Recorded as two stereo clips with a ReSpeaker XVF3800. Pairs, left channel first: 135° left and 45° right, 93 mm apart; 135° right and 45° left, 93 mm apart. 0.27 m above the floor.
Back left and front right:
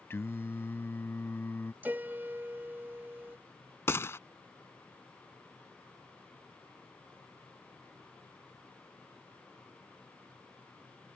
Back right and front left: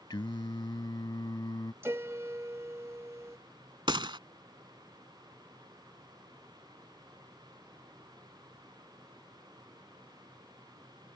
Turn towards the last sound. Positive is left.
turn(degrees=75)